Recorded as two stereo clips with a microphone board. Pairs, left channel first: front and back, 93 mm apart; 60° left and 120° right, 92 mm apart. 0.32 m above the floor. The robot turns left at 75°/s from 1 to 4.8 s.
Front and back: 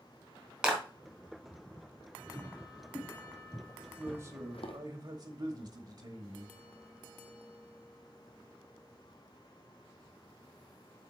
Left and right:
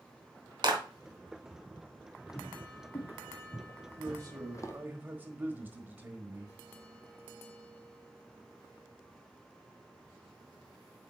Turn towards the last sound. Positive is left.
turn(degrees=180)